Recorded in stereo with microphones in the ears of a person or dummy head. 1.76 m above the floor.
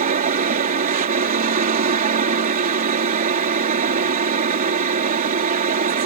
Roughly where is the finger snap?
No finger snap in this recording.